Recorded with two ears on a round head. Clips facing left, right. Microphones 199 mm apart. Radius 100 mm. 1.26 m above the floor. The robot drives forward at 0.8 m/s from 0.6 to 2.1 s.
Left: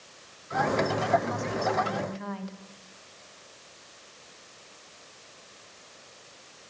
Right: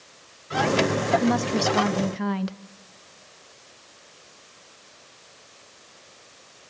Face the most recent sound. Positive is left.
turn(degrees=-75)  # may be behind; listen again after turning